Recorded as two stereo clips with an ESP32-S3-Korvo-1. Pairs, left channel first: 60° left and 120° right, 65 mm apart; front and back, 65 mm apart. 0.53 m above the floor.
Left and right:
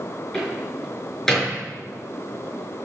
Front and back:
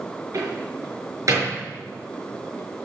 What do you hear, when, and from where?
0.3 s a door slam: 140° left, 5 m